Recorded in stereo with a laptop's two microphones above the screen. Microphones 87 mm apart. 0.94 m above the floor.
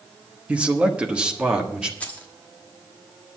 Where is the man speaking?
15° right (ahead or behind), 0.9 m; by 1.9 s 10° right (ahead or behind), 1.6 m.